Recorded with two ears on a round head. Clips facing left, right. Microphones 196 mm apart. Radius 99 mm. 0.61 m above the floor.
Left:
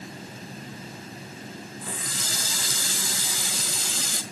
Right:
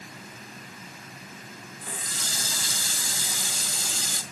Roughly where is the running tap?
Left.